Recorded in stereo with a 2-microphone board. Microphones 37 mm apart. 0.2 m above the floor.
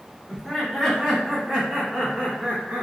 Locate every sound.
0.3 s laughter: 10° left (ahead or behind), 1.5 m; by 2.8 s 35° right (ahead or behind), 1.7 m